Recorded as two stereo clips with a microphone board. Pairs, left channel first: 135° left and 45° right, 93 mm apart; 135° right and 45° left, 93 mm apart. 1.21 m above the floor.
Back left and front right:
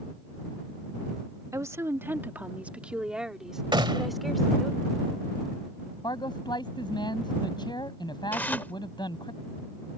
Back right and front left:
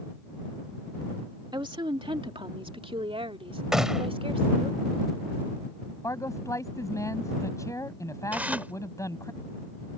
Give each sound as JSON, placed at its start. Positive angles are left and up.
{"t": 1.5, "sound": "a woman speaking", "azimuth_deg": 10}
{"t": 3.7, "sound": "a gunshot", "azimuth_deg": -40}
{"t": 6.0, "sound": "a man speaking", "azimuth_deg": 170}
{"t": 8.3, "sound": "tearing paper", "azimuth_deg": 95}